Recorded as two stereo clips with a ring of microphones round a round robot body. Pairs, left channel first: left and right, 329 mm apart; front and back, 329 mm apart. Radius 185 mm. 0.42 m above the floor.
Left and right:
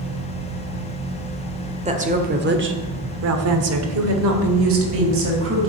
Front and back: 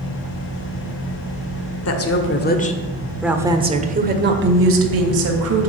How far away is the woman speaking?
About 1.8 m.